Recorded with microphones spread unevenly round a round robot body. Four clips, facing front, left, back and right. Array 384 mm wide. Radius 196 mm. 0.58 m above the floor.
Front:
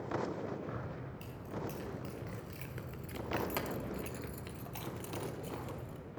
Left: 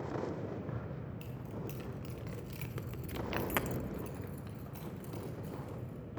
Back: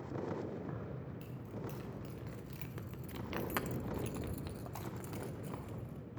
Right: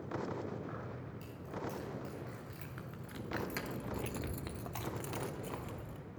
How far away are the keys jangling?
About 3.5 m.